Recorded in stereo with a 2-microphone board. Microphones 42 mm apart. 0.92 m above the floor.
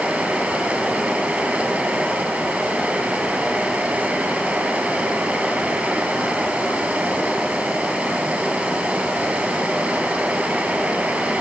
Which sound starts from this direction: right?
Running water, at 0.0 s.